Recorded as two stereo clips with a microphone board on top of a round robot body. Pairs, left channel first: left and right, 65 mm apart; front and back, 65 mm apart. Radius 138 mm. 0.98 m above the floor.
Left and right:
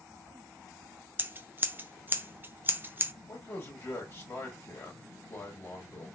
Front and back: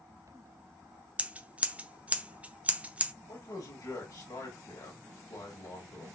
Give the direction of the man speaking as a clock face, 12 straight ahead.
11 o'clock.